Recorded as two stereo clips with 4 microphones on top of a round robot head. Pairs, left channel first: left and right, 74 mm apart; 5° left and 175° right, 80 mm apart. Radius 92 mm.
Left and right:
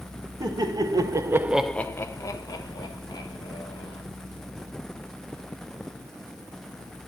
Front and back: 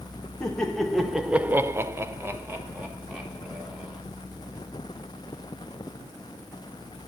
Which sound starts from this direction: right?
Laughter, at 0.4 s.